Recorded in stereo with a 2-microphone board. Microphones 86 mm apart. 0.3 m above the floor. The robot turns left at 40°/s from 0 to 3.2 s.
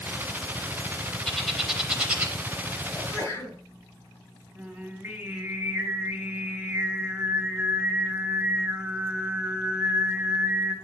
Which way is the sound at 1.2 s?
5° left (ahead or behind).